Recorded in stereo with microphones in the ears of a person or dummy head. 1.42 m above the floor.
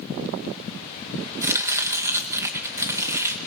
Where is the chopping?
15° right (ahead or behind), 1.9 m.